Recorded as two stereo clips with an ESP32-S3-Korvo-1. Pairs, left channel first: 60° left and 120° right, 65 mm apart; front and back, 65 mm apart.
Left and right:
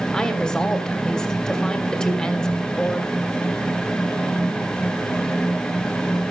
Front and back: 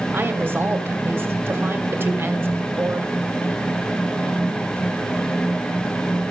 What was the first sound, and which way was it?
A woman speaking, 135° left.